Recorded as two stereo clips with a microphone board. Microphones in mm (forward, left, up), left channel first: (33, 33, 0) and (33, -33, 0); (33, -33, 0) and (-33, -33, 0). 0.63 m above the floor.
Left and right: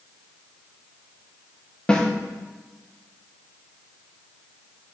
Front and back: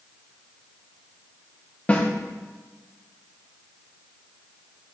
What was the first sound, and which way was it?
A snare drum, 35° left.